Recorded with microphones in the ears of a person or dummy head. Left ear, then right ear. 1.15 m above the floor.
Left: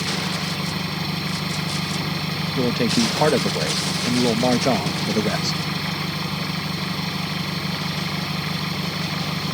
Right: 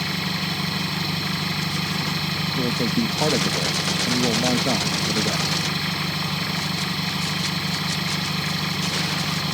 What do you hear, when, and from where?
0.0 s an engine running: 5° right (ahead or behind)
2.6 s a man speaking: 35° left (ahead or behind)